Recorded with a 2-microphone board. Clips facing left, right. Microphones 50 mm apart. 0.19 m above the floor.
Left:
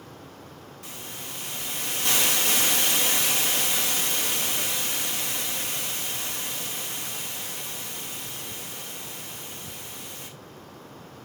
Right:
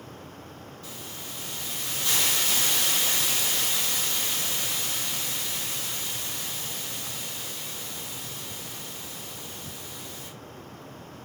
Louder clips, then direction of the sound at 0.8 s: Left 2 dB; 75° left (ahead or behind).